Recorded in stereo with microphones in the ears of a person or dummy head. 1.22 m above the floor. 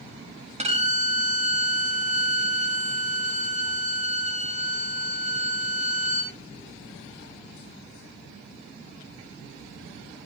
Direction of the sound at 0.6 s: 30° right (ahead or behind).